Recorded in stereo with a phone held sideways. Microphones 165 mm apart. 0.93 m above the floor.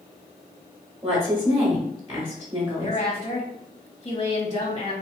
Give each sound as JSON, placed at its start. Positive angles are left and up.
{"t": 1.0, "sound": "a woman speaking", "side_deg": -25, "distance_m": 1.1}
{"t": 2.8, "sound": "a woman speaking", "side_deg": 30, "distance_m": 0.9}